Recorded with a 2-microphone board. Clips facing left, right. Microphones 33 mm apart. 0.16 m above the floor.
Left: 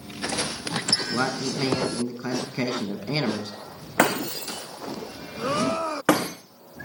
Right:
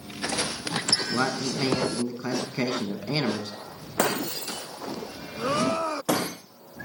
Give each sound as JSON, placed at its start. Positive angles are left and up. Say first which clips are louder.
{"t": 1.1, "sound": "a man speaking", "louder": "even", "side_deg": 15, "distance_m": 1.3}
{"t": 4.0, "sound": "breaking glass", "louder": "left 4 dB", "side_deg": 80, "distance_m": 5.0}